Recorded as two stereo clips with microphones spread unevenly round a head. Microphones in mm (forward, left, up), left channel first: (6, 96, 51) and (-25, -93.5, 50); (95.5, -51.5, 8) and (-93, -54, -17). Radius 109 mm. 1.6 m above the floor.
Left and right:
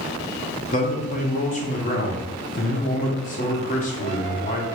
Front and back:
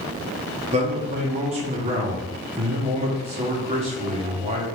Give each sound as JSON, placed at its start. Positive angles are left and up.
{"t": 0.7, "sound": "a man speaking", "azimuth_deg": 120, "distance_m": 0.7}